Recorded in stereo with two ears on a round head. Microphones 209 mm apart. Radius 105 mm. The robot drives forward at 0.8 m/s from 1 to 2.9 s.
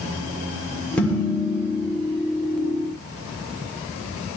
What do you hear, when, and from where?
1.0 s dishes clattering: 5° left (ahead or behind), 3 m